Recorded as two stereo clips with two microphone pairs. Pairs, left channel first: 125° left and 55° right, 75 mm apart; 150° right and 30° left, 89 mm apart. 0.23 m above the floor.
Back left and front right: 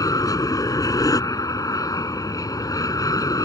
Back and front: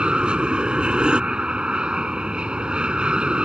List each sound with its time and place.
0.0 s an aircraft: 105° left